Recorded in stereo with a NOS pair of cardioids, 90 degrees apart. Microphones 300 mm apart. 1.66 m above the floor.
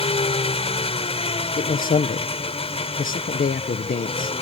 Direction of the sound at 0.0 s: 20° left.